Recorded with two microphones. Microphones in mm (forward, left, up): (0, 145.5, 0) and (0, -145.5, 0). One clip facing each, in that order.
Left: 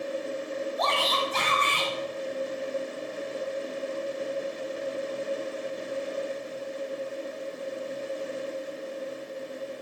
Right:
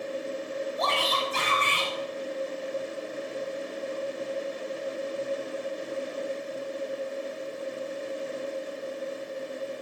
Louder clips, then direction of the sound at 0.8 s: Left 1 dB; 35° right (ahead or behind).